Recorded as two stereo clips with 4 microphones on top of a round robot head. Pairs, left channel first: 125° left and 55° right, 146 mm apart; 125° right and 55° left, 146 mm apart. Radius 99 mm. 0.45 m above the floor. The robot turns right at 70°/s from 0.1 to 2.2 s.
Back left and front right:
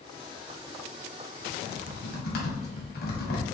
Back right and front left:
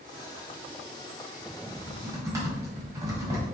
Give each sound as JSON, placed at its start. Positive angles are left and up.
{"t": 1.7, "sound": "typing on a keyboard", "azimuth_deg": 85, "distance_m": 1.4}